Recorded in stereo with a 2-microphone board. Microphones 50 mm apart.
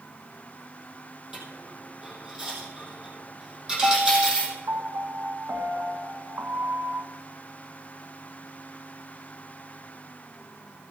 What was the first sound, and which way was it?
A dropped coin, 15° right (ahead or behind).